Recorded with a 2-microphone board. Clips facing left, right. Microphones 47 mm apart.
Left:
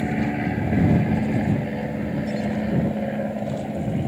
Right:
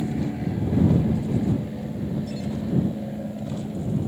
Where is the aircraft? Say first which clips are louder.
Left 3 dB; 60° left (ahead or behind).